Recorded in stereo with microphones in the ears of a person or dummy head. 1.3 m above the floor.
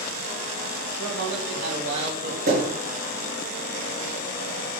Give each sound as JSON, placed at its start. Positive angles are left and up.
{"t": 1.0, "sound": "a man speaking", "side_deg": -85, "distance_m": 3.5}
{"t": 2.5, "sound": "a thud", "side_deg": -60, "distance_m": 5.0}